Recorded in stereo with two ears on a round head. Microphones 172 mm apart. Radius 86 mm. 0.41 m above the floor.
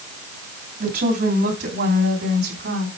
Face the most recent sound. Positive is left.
turn(degrees=-60)  # may be behind; listen again after turning